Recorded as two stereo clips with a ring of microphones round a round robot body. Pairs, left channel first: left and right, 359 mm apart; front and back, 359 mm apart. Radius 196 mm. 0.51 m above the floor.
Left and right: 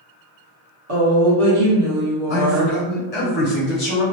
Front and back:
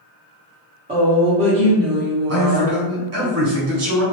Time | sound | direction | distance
0.9 | a woman speaking | 110° right | 0.9 m
2.3 | a man speaking | 145° left | 1.2 m